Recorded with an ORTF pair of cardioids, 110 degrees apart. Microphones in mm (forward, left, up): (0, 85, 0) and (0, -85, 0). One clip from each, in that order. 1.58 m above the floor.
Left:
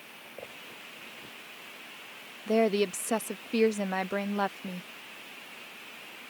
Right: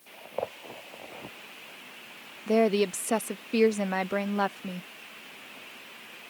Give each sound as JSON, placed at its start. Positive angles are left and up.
{"t": 2.5, "sound": "a woman speaking", "azimuth_deg": -10}